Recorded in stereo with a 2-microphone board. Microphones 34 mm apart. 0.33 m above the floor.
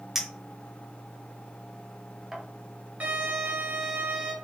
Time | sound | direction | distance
0.1 | a clink | 15° right (ahead or behind) | 0.9 m
3.0 | a violin | 55° right (ahead or behind) | 2 m